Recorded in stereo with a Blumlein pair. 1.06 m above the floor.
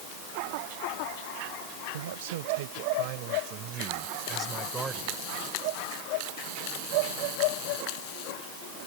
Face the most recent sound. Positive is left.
turn(degrees=-10)